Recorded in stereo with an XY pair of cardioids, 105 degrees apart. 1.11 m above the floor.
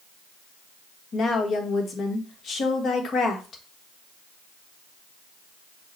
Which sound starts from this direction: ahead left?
A woman speaking, at 1.1 s.